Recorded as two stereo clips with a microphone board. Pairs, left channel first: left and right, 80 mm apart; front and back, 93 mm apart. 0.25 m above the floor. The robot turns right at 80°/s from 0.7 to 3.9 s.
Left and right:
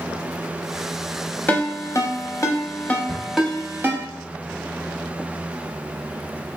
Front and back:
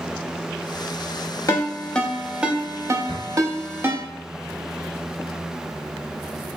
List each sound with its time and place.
1.5 s a ringtone: 35° left, 0.6 m; by 4.0 s 130° right, 0.6 m
3.1 s a drawer: 140° right, 1.6 m; by 3.3 s 125° right, 1.6 m